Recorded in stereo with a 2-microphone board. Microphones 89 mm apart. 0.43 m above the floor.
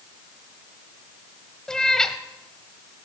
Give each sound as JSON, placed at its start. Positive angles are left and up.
{"t": 1.7, "sound": "a cat meowing", "side_deg": 5, "distance_m": 1.0}